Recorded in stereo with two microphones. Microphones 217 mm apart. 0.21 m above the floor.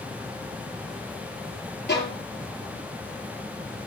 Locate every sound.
1.9 s a violin: 55° left (ahead or behind), 4.5 m